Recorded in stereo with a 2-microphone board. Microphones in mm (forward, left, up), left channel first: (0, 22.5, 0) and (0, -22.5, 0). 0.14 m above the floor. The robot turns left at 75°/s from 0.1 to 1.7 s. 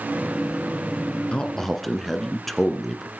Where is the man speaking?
25° left (ahead or behind), 1.6 m; by 3.1 s 5° left (ahead or behind), 1.6 m.